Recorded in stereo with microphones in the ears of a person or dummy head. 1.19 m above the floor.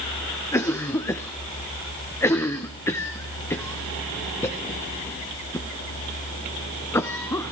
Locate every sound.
0.5 s a cough: 15° left (ahead or behind), 0.6 m